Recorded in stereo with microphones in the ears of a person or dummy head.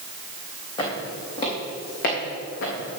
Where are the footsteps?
30° left (ahead or behind), 3.5 m; by 3.0 s 60° left (ahead or behind), 3 m.